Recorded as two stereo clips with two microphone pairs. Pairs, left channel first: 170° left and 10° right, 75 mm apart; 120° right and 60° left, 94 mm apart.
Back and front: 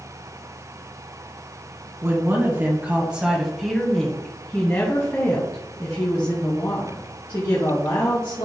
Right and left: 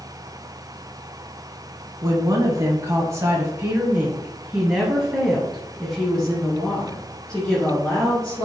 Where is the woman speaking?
30° left, 1.5 m; by 8.5 s 165° left, 3 m.